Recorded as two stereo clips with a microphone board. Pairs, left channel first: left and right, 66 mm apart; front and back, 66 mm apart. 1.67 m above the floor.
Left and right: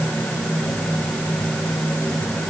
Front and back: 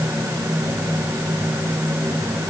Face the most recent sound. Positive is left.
No sound to turn to.